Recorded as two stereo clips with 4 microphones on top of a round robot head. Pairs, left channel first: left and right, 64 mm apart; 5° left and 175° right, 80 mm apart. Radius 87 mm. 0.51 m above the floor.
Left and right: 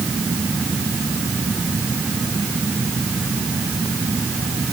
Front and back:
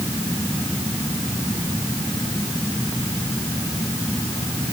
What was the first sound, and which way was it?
Only background noise.